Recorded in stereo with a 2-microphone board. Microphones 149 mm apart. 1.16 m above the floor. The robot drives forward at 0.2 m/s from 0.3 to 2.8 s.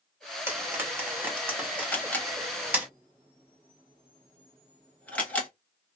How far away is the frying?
About 1.1 m.